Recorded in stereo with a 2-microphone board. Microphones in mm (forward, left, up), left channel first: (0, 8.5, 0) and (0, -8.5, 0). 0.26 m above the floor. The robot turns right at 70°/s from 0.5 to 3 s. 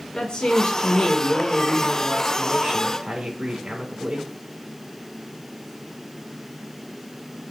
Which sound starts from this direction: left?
A woman speaking, at 0.1 s.